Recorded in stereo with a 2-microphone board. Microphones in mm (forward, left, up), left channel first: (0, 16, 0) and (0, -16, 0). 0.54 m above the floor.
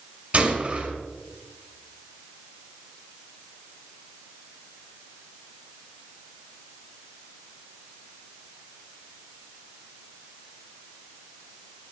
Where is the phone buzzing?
No phone buzzing in this recording.